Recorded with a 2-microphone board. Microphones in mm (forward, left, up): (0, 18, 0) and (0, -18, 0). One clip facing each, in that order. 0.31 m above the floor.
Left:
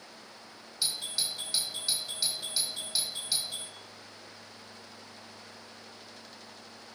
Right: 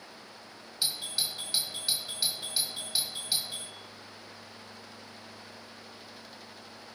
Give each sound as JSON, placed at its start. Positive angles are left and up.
{"t": 0.8, "sound": "a doorbell", "side_deg": -20, "distance_m": 2.0}